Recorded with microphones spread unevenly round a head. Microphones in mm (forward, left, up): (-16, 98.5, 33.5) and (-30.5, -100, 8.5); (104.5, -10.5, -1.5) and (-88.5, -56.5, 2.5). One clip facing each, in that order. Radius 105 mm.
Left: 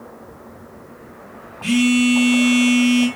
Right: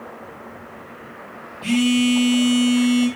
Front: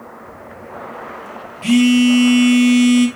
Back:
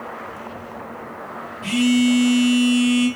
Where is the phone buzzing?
15° left, 1.4 m.